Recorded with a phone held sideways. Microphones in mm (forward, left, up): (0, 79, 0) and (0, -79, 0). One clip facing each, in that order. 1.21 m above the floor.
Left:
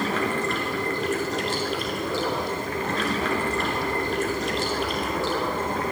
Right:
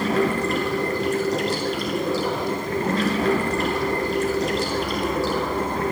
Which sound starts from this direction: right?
Running water, at 0.0 s.